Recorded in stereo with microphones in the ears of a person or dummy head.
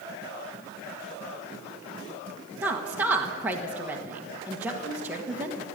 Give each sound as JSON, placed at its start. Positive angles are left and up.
{"t": 2.6, "sound": "a woman speaking", "side_deg": -15, "distance_m": 1.4}